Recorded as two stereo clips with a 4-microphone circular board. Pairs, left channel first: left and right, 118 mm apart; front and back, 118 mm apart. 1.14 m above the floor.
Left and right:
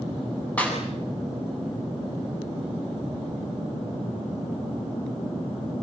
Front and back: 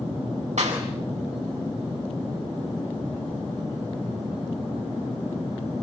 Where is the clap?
170° left, 7.5 m.